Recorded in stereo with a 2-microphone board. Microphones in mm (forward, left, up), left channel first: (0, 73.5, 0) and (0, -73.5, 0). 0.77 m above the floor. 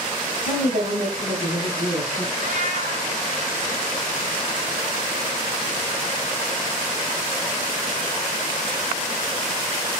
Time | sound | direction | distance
0.4 | a woman speaking | 70° right (ahead or behind) | 4 m
2.4 | a cat meowing | 70° right (ahead or behind) | 3 m